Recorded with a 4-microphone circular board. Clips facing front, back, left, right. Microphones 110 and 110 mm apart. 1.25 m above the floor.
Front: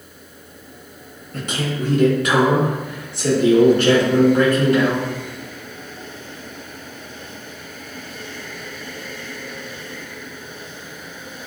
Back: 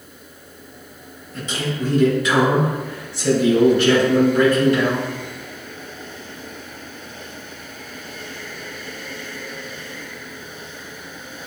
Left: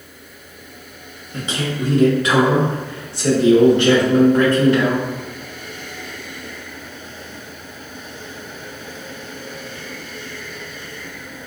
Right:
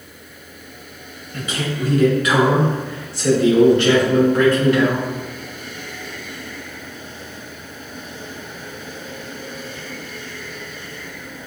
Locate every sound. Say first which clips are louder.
1.3 s a man speaking: front 1 dB, left 1 dB; 25° left, 1.0 m; by 5.0 s 30° left, 3.5 m